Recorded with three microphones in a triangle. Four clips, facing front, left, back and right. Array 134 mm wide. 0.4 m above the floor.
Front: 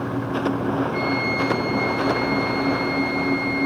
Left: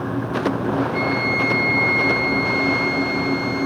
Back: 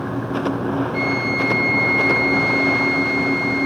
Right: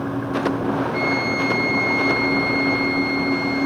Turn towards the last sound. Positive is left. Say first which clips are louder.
# even, back 1 dB
turn(degrees=-35)